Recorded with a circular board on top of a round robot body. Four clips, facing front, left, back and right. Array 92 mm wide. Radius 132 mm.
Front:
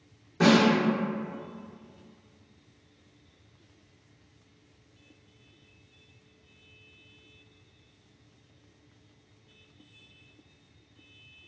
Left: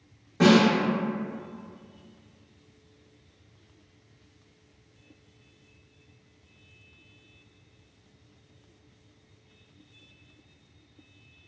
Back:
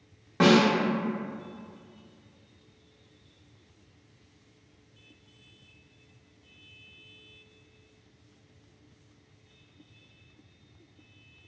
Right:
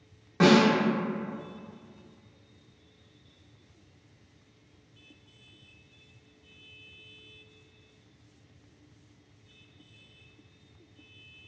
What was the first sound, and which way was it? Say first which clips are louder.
A snare drum: left 1 dB, back 1 dB; 155° right.